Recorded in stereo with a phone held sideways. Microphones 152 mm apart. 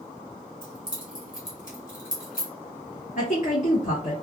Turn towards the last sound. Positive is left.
turn(degrees=60)  # may be behind; listen again after turning